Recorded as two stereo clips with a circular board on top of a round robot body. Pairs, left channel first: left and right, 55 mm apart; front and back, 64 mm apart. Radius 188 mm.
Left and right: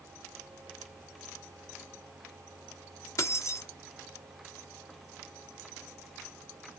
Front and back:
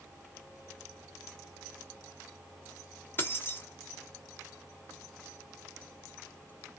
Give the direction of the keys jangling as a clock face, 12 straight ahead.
10 o'clock.